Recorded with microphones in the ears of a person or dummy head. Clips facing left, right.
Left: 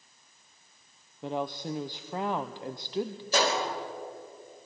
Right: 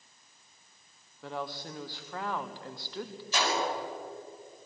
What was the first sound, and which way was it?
A woman speaking, 20° left (ahead or behind).